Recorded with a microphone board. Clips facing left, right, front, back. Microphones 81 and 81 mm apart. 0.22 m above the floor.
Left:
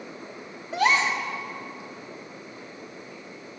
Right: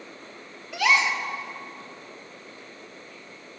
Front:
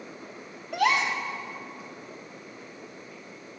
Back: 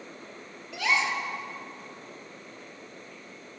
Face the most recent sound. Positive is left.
turn(degrees=40)